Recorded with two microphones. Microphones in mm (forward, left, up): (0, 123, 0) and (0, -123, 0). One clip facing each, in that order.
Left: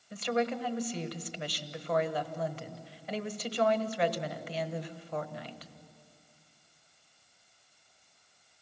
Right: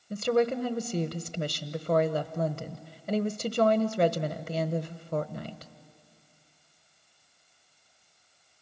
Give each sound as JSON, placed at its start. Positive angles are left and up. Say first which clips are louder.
{"t": 0.1, "sound": "a woman speaking", "louder": "right 6 dB", "side_deg": -45, "distance_m": 1.0}